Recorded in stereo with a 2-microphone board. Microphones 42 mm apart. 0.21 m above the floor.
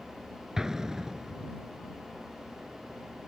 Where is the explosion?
10° right (ahead or behind).